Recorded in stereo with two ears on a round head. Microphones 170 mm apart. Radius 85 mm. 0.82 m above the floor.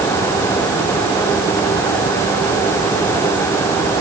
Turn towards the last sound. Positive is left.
No sound to turn to.